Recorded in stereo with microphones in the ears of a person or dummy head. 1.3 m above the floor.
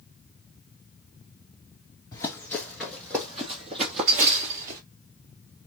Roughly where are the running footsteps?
Centre.